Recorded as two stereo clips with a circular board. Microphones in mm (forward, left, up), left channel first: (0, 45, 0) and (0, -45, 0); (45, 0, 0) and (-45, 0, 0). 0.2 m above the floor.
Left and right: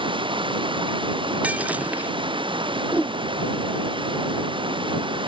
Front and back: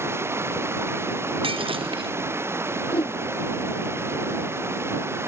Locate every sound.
0.0 s running water: 115° right
1.4 s breaking glass: 165° right
2.9 s a whoosh: 15° right